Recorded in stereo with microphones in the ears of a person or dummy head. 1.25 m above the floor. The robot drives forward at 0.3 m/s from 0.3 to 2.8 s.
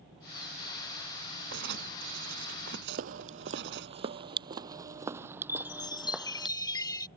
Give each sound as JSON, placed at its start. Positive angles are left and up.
{"t": 1.5, "sound": "writing", "side_deg": -75}
{"t": 2.9, "sound": "footsteps", "side_deg": -55}
{"t": 5.5, "sound": "a chime", "side_deg": 20}